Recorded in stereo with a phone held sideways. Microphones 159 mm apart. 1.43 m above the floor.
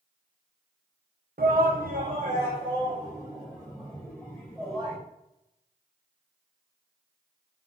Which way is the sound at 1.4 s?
70° right (ahead or behind).